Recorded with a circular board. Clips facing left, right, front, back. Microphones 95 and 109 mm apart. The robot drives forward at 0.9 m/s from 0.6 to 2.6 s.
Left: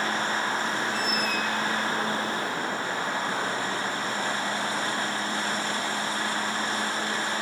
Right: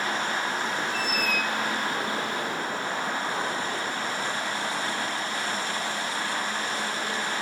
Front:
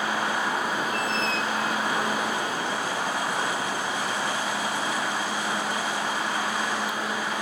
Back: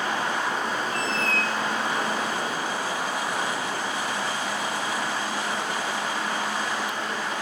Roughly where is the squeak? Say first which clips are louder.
Even, even; ahead left.